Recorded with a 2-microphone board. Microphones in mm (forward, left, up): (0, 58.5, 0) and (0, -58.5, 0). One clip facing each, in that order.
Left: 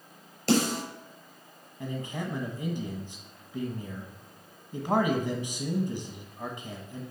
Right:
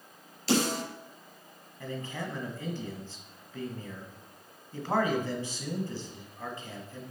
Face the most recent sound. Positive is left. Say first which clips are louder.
# left 2 dB
turn(degrees=15)  # may be behind; listen again after turning